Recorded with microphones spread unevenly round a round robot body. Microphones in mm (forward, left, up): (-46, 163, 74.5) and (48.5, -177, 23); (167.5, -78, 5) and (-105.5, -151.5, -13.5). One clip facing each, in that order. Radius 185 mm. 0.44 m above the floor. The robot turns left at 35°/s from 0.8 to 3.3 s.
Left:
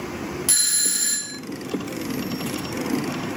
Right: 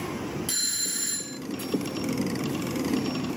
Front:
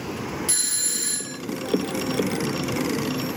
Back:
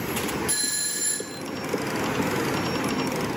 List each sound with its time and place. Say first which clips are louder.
0.5 s a doorbell: left 2 dB, even; 80° left, 1.1 m; by 1.4 s 55° left, 1.1 m